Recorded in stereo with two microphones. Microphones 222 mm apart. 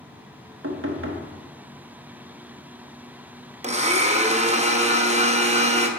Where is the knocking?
70° right (ahead or behind), 1.2 m.